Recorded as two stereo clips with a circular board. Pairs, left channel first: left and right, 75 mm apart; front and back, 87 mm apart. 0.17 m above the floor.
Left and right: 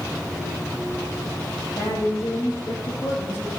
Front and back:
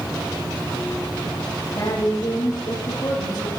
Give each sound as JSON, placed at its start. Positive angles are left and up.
{"t": 1.8, "sound": "a woman speaking", "azimuth_deg": 50, "distance_m": 7.5}